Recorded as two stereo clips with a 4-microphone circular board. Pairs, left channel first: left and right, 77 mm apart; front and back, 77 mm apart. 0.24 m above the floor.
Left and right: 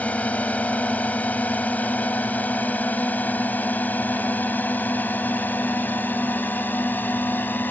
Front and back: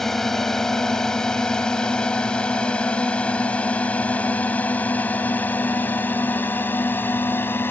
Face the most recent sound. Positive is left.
turn(degrees=40)